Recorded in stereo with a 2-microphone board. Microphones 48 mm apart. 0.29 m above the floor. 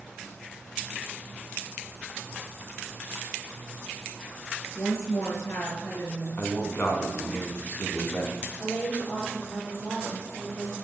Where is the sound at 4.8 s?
65° left (ahead or behind), 4.5 m.